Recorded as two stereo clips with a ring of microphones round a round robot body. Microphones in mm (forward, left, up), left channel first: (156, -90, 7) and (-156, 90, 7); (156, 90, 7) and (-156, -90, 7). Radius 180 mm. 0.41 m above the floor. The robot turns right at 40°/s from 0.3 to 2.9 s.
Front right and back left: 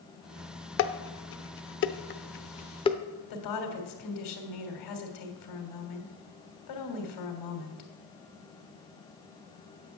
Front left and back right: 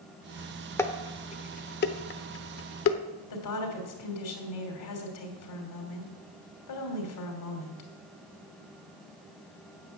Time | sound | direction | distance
0.8 | dishes clattering | 50° right | 0.7 m
3.3 | a woman speaking | straight ahead | 3 m